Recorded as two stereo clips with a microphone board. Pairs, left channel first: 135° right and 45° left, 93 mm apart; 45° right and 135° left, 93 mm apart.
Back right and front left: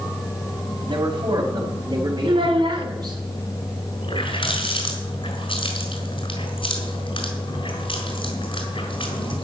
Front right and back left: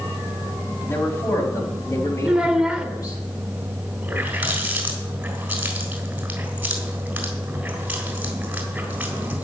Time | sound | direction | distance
0.9 | a man speaking | 15° left | 4.5 m
2.2 | a child speaking | 55° left | 1.6 m
4.0 | a running tap | 150° right | 3.5 m